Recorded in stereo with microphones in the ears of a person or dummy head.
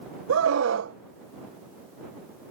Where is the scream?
80° right.